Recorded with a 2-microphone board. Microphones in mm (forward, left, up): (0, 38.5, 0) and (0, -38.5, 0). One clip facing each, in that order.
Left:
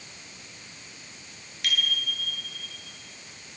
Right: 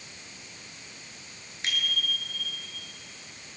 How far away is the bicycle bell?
About 8 m.